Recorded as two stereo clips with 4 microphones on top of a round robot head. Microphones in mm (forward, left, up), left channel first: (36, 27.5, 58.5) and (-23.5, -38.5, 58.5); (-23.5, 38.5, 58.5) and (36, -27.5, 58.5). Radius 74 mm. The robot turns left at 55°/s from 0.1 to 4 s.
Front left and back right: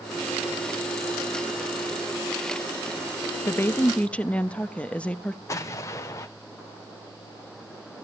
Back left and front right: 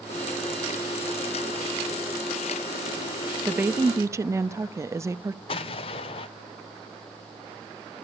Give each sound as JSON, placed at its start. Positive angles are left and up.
{"t": 3.5, "sound": "a woman speaking", "azimuth_deg": 10, "distance_m": 0.6}
{"t": 5.5, "sound": "an explosion", "azimuth_deg": 110, "distance_m": 0.6}